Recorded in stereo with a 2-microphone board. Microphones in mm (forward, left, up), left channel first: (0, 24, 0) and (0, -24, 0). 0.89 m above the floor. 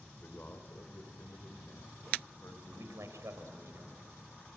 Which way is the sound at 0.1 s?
35° left (ahead or behind).